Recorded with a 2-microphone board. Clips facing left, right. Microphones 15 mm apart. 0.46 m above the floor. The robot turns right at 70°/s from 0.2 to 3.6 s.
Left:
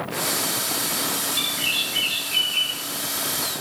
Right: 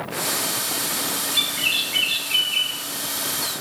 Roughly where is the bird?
Behind right.